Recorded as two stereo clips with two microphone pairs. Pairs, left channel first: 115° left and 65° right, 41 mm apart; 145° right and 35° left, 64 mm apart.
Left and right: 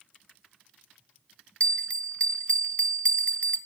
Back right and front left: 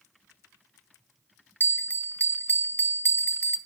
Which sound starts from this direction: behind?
A bell, at 1.6 s.